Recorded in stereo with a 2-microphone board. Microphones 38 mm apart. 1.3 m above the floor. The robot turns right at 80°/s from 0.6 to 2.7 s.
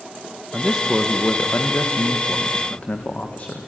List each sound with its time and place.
0.5 s a man speaking: 25° right, 1.3 m; by 3.7 s 140° left, 1.3 m